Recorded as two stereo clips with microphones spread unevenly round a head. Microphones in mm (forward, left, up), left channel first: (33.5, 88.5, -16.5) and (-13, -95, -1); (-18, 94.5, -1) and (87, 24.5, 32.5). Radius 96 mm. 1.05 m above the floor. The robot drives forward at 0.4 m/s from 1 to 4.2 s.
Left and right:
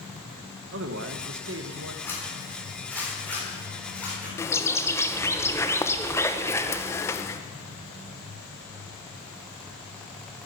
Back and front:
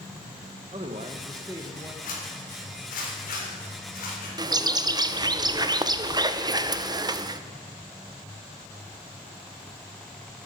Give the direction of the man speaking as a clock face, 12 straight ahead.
3 o'clock.